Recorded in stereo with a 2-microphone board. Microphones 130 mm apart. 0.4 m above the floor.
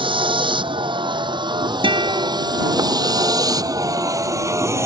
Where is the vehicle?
40° right (ahead or behind); by 4.9 s 20° right (ahead or behind).